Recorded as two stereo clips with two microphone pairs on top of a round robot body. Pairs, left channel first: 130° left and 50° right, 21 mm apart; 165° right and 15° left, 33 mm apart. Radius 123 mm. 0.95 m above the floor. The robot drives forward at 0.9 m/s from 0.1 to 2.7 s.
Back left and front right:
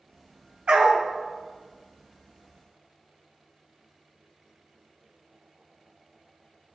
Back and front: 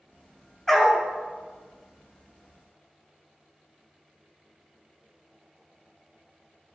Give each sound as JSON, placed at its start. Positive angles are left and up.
{"t": 0.7, "sound": "a dog barking", "azimuth_deg": -85, "distance_m": 1.1}